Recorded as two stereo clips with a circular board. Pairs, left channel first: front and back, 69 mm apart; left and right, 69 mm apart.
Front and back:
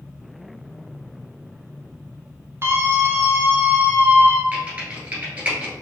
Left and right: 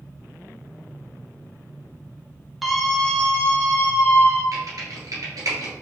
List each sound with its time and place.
2.6 s a scream: straight behind, 1.0 m; by 4.4 s 135° left, 1.5 m
4.5 s typing on a keyboard: 110° right, 2 m